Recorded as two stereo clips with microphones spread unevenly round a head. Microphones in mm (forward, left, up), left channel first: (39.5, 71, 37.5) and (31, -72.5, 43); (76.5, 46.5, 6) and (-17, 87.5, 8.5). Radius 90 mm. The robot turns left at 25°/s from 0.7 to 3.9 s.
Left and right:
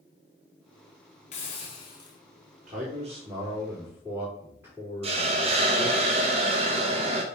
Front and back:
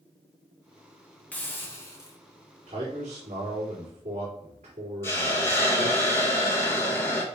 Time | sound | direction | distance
1.3 | a hiss | 50° left | 1.7 m
2.7 | a man speaking | 140° right | 4 m
5.0 | a hiss | 85° right | 1.0 m